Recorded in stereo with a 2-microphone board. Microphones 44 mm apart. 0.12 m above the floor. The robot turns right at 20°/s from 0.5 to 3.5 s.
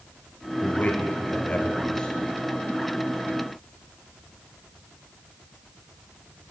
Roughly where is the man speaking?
Left.